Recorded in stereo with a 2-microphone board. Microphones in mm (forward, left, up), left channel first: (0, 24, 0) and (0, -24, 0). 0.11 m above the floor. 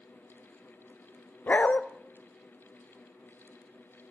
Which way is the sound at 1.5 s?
40° left (ahead or behind).